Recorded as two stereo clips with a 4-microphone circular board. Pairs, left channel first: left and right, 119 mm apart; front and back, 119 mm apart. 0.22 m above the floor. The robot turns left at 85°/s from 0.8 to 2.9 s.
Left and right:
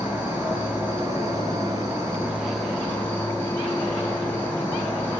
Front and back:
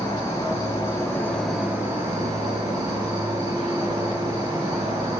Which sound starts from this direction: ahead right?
An insect, at 0.0 s.